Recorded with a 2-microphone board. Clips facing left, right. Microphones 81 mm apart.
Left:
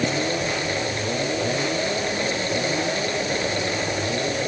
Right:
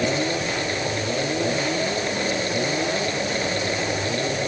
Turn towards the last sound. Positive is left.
No sound to turn to.